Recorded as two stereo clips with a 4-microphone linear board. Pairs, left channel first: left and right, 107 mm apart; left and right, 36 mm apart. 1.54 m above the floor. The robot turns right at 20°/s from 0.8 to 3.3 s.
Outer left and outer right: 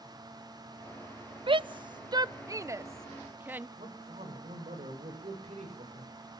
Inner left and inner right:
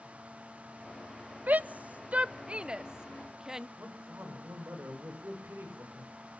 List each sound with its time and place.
1.5 s a shout: 50° right (ahead or behind), 0.7 m; by 3.7 s 15° right (ahead or behind), 0.7 m
3.8 s a man speaking: 80° right, 7 m